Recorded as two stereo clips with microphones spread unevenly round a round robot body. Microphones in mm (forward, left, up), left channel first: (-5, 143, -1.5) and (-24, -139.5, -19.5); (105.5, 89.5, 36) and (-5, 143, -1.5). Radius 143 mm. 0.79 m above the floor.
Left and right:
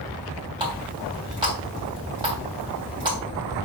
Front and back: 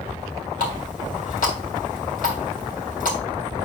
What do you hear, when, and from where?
0.6 s a running tap: 20° right, 3.5 m